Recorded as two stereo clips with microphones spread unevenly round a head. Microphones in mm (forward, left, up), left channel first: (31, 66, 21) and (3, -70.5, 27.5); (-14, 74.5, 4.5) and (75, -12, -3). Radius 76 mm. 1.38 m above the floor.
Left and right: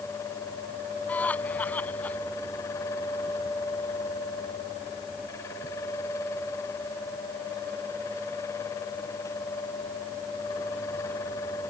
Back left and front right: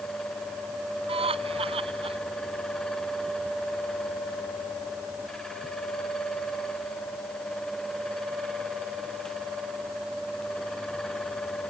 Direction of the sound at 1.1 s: Straight ahead.